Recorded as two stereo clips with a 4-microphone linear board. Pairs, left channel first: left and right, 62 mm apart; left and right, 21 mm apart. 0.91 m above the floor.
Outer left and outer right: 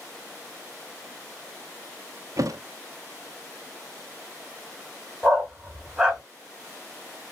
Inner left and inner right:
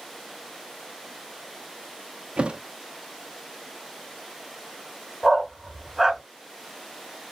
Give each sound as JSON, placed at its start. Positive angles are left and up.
{"t": 2.4, "sound": "a thud", "side_deg": -60, "distance_m": 0.6}
{"t": 5.2, "sound": "a dog barking", "side_deg": -15, "distance_m": 1.5}